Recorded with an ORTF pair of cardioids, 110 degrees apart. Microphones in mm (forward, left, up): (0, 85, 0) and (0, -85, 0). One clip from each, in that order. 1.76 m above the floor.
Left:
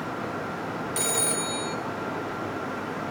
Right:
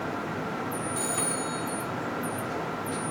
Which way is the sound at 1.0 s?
50° left.